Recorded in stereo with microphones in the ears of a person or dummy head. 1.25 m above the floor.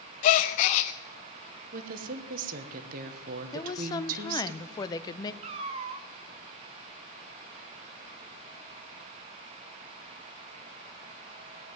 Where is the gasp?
35° left (ahead or behind), 0.5 m.